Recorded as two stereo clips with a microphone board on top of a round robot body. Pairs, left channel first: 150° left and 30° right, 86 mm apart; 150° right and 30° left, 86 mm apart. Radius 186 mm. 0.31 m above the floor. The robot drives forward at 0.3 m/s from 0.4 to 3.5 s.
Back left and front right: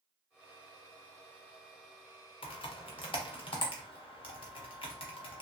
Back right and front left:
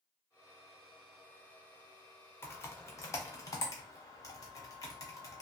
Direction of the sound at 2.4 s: 150° left.